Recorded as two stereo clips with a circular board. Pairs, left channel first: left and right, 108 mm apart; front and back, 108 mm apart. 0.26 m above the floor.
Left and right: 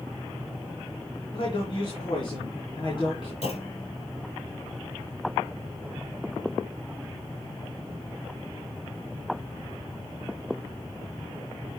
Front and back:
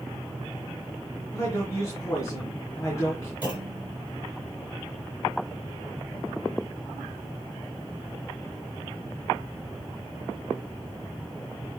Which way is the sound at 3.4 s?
105° left.